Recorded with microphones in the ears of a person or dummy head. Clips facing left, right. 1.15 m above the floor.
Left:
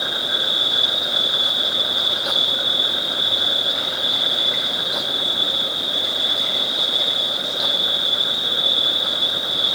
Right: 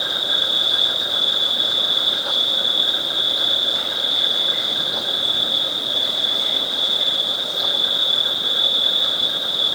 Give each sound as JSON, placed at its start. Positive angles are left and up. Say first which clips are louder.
{"t": 0.0, "sound": "an insect", "louder": "left 1 dB", "side_deg": 0, "distance_m": 8.0}